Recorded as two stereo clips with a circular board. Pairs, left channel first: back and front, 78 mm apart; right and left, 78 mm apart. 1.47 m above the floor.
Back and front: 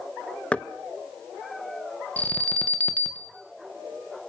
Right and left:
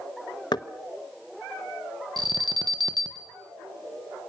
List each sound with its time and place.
0.5 s knocking: 105° right, 1.0 m
2.2 s an alarm: 110° left, 2.5 m